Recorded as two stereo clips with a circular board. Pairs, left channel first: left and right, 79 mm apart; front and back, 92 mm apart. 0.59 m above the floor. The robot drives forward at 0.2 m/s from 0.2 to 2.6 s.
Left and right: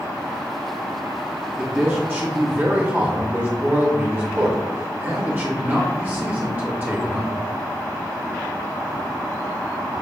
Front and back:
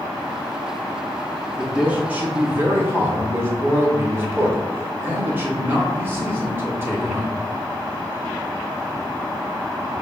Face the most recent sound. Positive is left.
turn(degrees=-135)